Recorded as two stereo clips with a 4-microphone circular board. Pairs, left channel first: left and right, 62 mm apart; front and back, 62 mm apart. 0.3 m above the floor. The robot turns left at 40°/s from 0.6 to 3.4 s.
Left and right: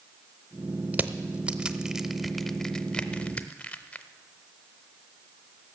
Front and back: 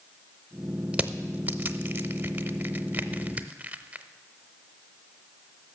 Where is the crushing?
125° right, 0.6 m; by 4.0 s 135° left, 0.6 m.